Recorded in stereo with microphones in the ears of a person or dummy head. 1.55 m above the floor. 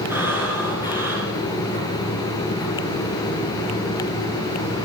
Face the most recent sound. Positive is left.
turn(degrees=-10)  # may be behind; listen again after turning